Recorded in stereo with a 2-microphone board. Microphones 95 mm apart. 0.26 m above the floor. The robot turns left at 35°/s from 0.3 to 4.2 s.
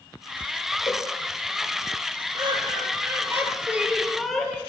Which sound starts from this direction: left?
A cowbell, at 0.9 s.